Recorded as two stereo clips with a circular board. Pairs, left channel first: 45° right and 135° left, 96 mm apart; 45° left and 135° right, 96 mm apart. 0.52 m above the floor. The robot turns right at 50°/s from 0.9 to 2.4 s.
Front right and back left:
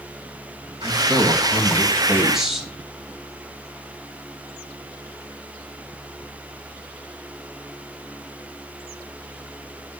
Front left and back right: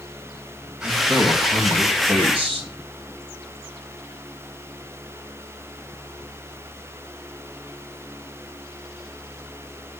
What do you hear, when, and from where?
0.8 s a man speaking: 150° left, 2.5 m; by 2.7 s 135° right, 2.5 m